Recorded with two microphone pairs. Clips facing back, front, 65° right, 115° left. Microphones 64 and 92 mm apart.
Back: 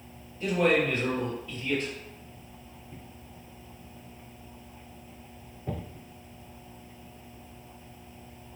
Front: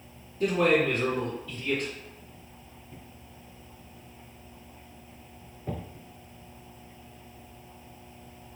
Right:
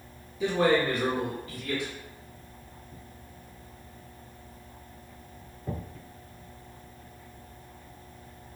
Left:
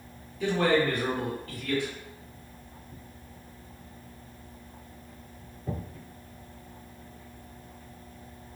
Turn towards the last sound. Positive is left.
turn(degrees=5)